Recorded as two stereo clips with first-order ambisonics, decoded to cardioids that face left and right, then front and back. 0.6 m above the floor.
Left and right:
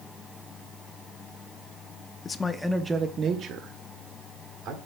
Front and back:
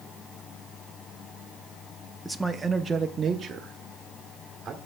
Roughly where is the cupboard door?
I don't hear a cupboard door.